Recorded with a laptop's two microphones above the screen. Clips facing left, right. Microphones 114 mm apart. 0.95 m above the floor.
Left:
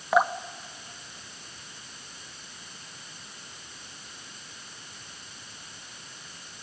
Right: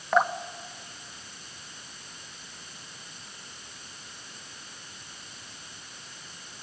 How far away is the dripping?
About 0.8 m.